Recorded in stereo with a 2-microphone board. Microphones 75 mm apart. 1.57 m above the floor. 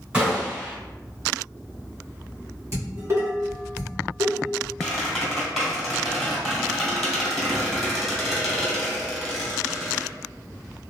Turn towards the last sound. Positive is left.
turn(degrees=0)  # may be behind; listen again after turning